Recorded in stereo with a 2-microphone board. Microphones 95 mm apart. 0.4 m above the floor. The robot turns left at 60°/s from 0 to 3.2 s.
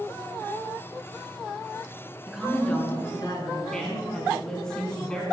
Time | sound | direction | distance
2.3 | a woman speaking | 165° right | 3.5 m
3.7 | a woman speaking | 5° left (ahead or behind) | 3 m